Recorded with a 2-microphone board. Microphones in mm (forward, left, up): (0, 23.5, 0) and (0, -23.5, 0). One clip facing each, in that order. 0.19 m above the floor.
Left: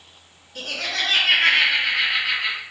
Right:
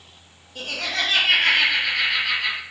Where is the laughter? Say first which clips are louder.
Even; 55° left (ahead or behind), 2.5 m; by 2.6 s 5° right (ahead or behind), 1.3 m.